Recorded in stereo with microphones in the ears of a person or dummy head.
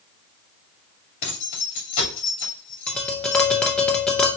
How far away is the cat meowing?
I don't hear a cat meowing.